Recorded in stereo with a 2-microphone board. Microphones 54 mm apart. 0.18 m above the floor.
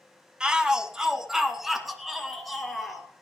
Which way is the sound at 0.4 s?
15° right (ahead or behind).